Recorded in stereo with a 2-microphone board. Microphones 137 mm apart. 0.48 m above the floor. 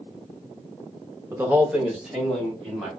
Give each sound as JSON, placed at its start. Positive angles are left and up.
{"t": 1.3, "sound": "a man speaking", "side_deg": -15, "distance_m": 1.0}